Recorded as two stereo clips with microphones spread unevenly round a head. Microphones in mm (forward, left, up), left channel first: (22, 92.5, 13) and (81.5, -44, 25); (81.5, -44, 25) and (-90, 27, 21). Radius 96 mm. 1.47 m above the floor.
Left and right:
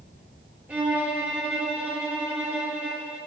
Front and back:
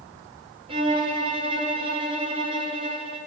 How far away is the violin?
About 0.7 m.